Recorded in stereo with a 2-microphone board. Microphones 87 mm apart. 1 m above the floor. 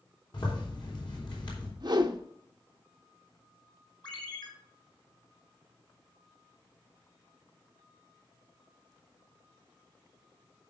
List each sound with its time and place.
0.3 s a zipper: 60° left (ahead or behind), 3.5 m
1.8 s a whoosh: 55° right (ahead or behind), 0.7 m
4.0 s a ringtone: 60° left (ahead or behind), 3 m